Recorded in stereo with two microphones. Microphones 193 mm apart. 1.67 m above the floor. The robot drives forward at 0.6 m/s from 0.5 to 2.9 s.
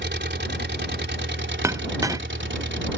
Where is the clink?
15° right (ahead or behind); by 2.2 s 20° right (ahead or behind).